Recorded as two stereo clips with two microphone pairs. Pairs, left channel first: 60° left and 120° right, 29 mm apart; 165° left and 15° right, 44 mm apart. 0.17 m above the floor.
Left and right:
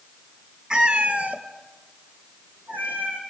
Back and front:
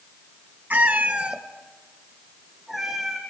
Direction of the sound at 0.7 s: 55° right.